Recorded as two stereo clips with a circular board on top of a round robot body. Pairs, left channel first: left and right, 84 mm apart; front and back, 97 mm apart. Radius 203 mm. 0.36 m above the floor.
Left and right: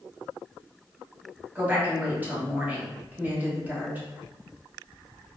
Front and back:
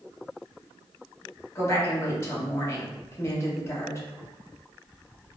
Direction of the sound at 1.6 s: 40° right.